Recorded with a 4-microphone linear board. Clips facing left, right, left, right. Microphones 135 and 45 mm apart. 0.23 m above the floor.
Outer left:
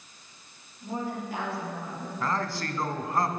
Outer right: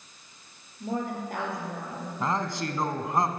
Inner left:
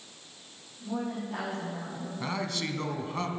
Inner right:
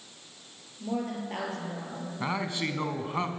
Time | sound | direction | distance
0.8 | a woman speaking | 50° right (ahead or behind) | 5.5 m
2.2 | a man speaking | 20° right (ahead or behind) | 1.5 m